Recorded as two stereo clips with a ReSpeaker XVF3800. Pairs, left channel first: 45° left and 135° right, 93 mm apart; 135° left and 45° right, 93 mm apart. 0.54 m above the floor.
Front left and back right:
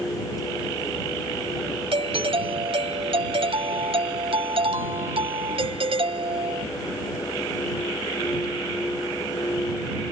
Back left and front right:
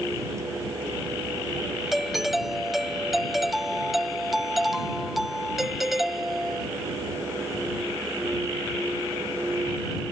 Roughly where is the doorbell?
Behind right.